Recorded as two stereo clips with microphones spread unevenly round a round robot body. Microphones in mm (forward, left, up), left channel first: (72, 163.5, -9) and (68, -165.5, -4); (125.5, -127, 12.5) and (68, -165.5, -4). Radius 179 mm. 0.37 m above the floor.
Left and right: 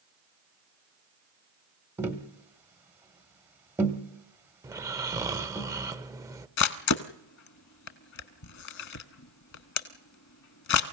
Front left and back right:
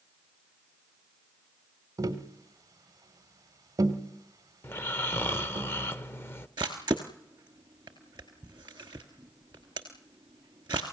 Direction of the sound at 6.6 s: 140° left.